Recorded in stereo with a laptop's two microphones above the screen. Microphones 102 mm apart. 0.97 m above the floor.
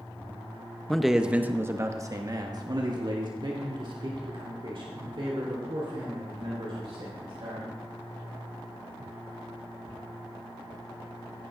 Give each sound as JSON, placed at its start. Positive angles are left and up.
{"t": 0.9, "sound": "a man speaking", "side_deg": 5, "distance_m": 0.7}